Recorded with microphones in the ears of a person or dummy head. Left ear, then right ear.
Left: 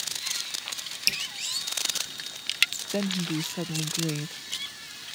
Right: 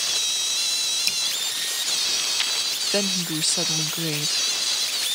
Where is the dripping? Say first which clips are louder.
Right 2 dB; centre (ahead or behind).